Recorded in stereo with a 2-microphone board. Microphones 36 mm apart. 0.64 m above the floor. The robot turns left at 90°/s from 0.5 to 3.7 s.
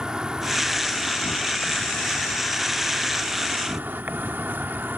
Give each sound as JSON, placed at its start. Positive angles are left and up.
{"t": 0.0, "sound": "an insect", "azimuth_deg": -155}